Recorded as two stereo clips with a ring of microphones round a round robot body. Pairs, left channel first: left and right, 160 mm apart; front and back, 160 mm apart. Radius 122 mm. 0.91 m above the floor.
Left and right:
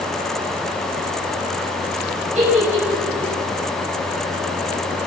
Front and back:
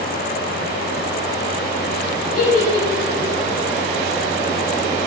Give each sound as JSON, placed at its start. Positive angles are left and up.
{"t": 2.4, "sound": "a giggle", "azimuth_deg": -45, "distance_m": 8.0}